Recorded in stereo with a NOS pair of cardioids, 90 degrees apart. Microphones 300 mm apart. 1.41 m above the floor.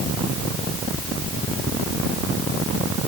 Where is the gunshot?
I don't hear a gunshot.